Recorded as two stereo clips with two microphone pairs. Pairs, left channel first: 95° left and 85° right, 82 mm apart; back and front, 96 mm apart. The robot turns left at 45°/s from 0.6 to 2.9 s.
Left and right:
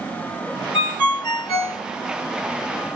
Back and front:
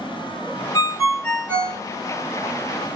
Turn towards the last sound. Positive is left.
turn(degrees=35)